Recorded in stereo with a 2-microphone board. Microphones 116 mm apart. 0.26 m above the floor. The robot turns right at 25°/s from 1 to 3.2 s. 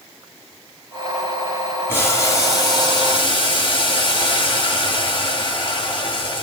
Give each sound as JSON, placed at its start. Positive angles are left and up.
{"t": 1.9, "sound": "boiling", "azimuth_deg": 25, "distance_m": 2.0}